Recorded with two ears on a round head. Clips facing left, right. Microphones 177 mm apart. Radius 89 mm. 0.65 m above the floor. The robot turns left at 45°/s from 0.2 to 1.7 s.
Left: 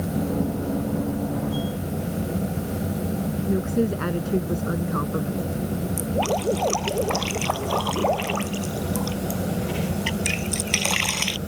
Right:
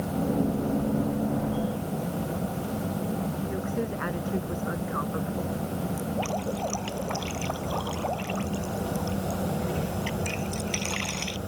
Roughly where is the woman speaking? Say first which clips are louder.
Left 7 dB; left.